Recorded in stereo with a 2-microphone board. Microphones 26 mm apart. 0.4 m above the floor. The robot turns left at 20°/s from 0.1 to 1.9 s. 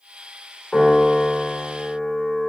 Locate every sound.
0.7 s a piano: 20° left (ahead or behind), 1.0 m